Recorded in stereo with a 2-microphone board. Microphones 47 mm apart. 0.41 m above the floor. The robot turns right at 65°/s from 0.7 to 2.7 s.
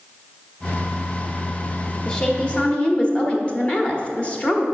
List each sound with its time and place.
2.0 s a woman speaking: 20° left (ahead or behind), 1.1 m; by 4.7 s 25° left (ahead or behind), 1.1 m